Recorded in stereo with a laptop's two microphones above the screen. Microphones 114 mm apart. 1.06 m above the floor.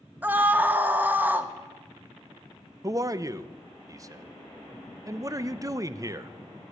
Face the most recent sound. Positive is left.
turn(degrees=-30)  # may be behind; listen again after turning